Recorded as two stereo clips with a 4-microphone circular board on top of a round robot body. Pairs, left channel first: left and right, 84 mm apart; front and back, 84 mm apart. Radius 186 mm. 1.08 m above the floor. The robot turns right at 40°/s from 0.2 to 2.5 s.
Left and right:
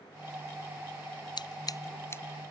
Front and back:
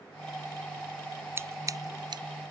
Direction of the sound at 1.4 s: 120° left.